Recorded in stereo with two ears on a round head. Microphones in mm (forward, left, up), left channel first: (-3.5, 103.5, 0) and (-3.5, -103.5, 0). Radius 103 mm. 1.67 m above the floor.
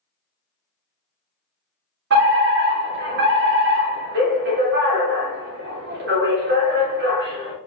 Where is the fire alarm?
50° right (ahead or behind), 3 m.